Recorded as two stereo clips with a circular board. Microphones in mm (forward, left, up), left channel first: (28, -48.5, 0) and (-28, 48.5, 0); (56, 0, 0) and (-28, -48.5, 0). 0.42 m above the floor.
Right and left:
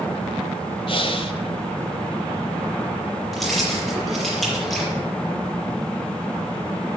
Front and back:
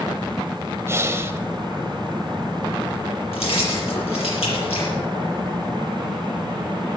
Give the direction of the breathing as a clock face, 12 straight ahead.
3 o'clock.